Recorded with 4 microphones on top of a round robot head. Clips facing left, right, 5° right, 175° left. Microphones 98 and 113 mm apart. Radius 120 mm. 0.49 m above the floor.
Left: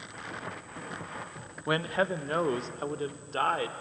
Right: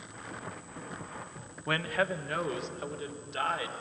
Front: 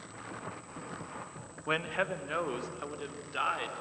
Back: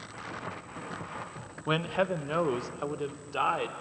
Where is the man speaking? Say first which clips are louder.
Left 2 dB, back 5 dB; 135° left, 0.9 m; by 3.7 s 125° left, 1.8 m.